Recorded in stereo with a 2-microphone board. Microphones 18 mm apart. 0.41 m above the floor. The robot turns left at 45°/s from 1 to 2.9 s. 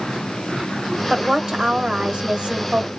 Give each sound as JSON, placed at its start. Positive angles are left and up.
{"t": 1.1, "sound": "a woman speaking", "azimuth_deg": -35, "distance_m": 1.2}